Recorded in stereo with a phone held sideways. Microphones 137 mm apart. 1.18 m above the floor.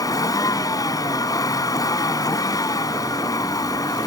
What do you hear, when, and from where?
0.0 s a vehicle: 30° left (ahead or behind)